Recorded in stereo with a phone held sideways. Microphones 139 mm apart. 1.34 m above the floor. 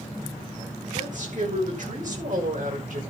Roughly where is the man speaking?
Right.